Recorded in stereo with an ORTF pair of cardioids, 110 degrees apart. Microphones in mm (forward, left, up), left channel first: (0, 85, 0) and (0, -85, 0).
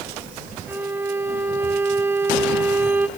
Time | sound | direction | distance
0.7 | a violin | 10° right | 1.1 m